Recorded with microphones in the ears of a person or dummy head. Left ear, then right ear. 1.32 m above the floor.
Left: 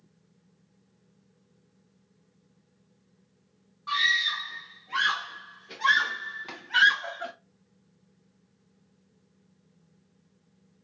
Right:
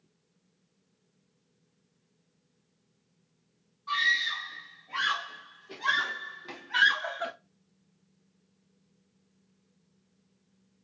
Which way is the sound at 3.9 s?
45° left (ahead or behind).